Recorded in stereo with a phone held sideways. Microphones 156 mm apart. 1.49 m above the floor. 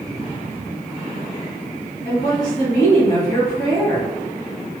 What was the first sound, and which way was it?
A woman speaking, 65° left (ahead or behind).